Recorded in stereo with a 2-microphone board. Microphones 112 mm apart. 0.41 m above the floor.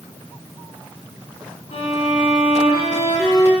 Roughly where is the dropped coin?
I don't hear a dropped coin.